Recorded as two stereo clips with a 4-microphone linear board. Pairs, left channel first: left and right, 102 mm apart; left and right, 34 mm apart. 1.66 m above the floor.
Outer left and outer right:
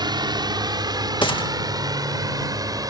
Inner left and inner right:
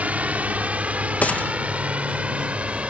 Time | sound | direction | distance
0.0 | a drone | 45° right (ahead or behind) | ?
1.2 | a gunshot | 50° left (ahead or behind) | ?